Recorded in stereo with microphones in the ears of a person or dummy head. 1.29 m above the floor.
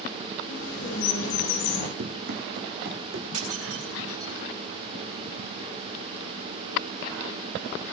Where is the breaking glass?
35° right (ahead or behind), 6.5 m.